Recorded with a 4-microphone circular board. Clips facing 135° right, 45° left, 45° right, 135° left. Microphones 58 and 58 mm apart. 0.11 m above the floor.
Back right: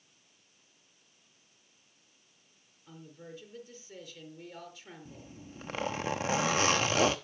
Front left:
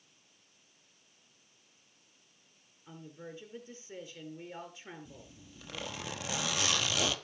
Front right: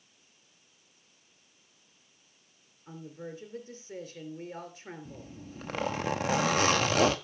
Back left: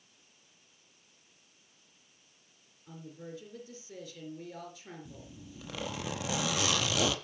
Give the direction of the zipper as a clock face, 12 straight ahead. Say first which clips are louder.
Back right 4 dB, front right 4 dB; 3 o'clock.